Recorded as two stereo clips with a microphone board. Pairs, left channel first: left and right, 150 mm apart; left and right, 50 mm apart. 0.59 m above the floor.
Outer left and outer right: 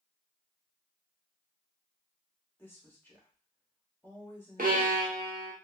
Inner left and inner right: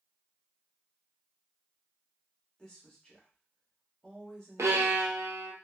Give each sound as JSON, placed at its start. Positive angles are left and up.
{"t": 2.6, "sound": "a woman speaking", "side_deg": 15, "distance_m": 1.1}
{"t": 4.6, "sound": "a violin", "side_deg": -80, "distance_m": 0.5}